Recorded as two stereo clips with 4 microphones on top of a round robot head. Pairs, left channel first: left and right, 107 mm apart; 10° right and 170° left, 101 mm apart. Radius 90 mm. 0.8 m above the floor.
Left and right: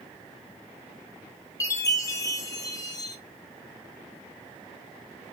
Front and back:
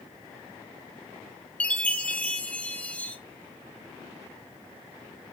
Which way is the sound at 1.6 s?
60° left.